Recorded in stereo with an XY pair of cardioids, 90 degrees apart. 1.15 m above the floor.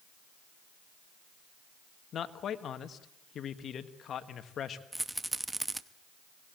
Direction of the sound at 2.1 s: 65° left.